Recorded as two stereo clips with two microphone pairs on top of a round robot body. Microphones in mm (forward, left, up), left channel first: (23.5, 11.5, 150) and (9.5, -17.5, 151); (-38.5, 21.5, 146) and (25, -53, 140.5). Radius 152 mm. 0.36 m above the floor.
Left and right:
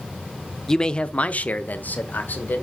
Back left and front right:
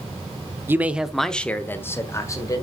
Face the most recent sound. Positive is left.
turn(degrees=80)